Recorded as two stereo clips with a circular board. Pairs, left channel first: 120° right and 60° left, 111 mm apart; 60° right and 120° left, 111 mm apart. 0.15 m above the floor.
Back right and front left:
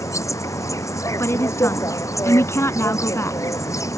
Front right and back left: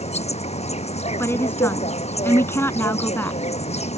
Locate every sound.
0.0 s an insect: 60° right
1.2 s a woman speaking: 95° right